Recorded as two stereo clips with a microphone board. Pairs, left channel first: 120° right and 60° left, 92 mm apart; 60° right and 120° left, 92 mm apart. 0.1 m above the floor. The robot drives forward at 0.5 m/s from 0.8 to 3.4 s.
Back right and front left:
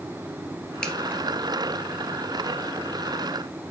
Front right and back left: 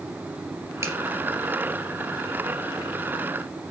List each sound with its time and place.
0.8 s a finger snap: 160° left, 1.8 m